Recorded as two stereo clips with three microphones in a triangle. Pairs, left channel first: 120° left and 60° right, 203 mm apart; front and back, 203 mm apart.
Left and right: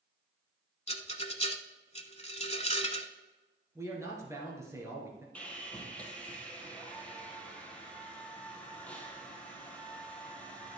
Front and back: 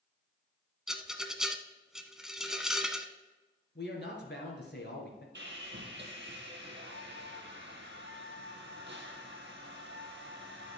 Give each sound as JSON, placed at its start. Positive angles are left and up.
{"t": 0.9, "sound": "a rattle", "azimuth_deg": 95, "distance_m": 0.8}
{"t": 3.8, "sound": "a man speaking", "azimuth_deg": 15, "distance_m": 3.0}
{"t": 5.3, "sound": "sawing", "azimuth_deg": -155, "distance_m": 1.8}